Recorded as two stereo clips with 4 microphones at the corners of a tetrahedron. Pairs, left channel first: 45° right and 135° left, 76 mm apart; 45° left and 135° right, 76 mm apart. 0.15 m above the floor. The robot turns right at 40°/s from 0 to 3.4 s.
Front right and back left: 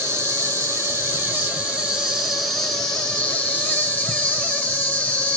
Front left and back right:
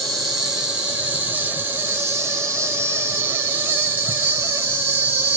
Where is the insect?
130° left, 1.7 m; by 5.4 s 95° right, 1.7 m.